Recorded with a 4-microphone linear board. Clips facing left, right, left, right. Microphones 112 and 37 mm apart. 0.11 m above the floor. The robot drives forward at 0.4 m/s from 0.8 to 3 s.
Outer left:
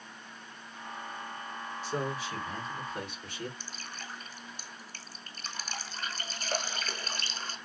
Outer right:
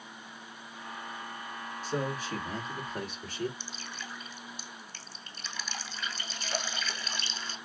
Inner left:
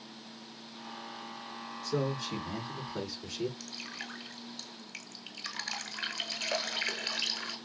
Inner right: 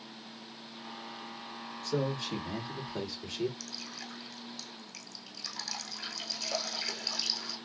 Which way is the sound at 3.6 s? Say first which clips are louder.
Outer right 1 dB, inner left 2 dB; 45° left (ahead or behind).